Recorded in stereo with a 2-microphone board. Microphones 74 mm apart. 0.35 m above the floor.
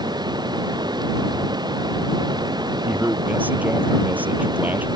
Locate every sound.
0.0 s running water: 75° right (ahead or behind)
2.8 s a man speaking: 20° right (ahead or behind)